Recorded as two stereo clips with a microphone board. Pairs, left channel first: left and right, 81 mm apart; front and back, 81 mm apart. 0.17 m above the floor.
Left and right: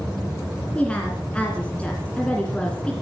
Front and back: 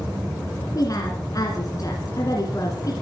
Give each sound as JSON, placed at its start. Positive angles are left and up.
{"t": 0.8, "sound": "a woman speaking", "azimuth_deg": 20, "distance_m": 2.0}